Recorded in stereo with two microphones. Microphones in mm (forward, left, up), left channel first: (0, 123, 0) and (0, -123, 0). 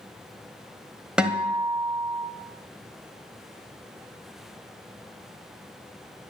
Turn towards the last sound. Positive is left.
turn(degrees=-5)  # may be behind; listen again after turning